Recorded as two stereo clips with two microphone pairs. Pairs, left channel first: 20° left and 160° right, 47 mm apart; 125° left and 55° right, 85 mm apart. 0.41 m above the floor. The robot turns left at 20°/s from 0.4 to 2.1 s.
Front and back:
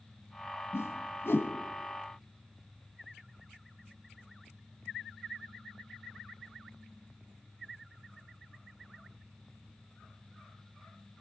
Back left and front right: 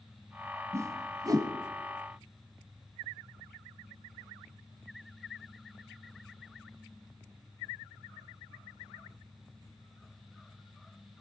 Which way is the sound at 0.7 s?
Straight ahead.